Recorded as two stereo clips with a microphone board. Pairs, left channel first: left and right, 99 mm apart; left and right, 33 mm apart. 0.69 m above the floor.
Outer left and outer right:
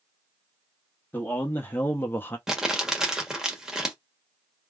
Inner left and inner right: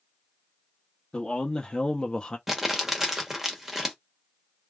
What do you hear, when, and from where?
1.1 s a man speaking: 20° left (ahead or behind), 1.0 m
2.5 s crumpling: 5° right (ahead or behind), 1.2 m